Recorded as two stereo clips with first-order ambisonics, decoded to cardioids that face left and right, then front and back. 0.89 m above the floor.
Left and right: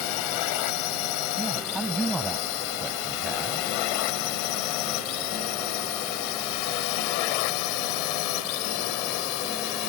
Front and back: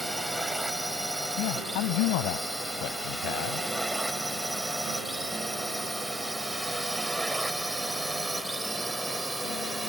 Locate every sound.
0.0 s a drone: 95° left; by 9.9 s 100° left
1.4 s a man speaking: 10° right